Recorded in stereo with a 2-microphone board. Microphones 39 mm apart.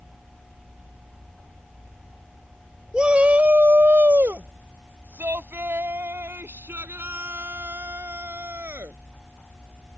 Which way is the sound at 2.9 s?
25° right (ahead or behind).